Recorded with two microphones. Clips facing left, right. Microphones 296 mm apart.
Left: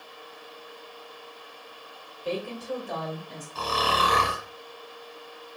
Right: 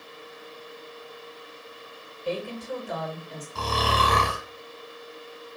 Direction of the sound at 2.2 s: 40° left (ahead or behind).